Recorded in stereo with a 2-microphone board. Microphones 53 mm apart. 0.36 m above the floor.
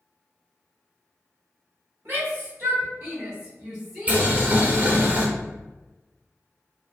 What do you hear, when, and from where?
2.0 s a shout: 50° right (ahead or behind), 1.9 m; by 5.1 s 25° left (ahead or behind), 1.4 m
4.1 s boiling: 30° right (ahead or behind), 0.9 m